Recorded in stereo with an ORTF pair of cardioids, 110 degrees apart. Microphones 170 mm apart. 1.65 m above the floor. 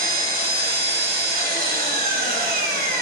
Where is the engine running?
70° right, 1.3 m.